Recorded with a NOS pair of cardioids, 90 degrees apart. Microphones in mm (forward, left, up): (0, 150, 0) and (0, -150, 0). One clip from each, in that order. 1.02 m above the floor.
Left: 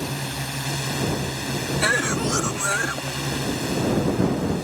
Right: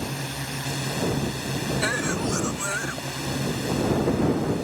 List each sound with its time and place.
0.0 s a drone: 20° left
1.8 s a cough: 25° left